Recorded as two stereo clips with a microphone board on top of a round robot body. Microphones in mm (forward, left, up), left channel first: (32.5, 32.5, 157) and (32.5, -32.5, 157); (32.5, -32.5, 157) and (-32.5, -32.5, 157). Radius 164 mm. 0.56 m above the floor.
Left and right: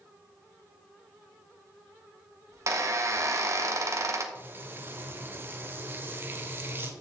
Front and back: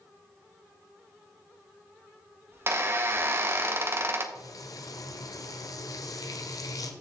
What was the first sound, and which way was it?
A squeak, 130° right.